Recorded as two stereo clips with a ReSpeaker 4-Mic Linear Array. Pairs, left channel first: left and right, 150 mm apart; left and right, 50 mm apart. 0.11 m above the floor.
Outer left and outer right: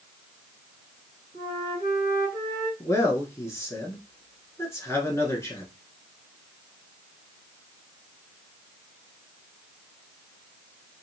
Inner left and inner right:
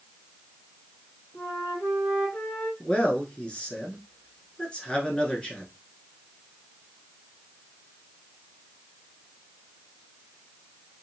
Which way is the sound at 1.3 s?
65° left (ahead or behind).